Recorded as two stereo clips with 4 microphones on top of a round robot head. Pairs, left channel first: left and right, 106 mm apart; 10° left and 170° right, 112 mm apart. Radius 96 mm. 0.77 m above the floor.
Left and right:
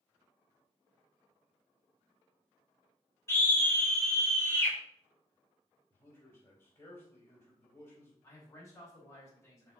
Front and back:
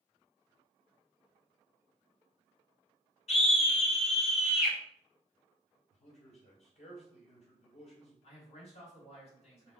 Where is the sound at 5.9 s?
20° left, 4 m.